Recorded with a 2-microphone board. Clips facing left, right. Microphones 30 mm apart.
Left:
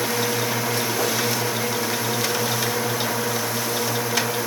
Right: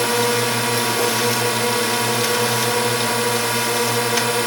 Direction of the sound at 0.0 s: 65° right (ahead or behind).